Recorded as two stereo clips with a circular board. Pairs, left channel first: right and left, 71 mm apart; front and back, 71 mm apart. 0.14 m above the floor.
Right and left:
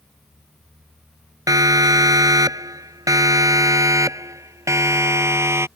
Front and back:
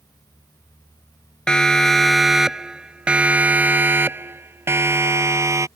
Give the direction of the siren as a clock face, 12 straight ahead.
9 o'clock.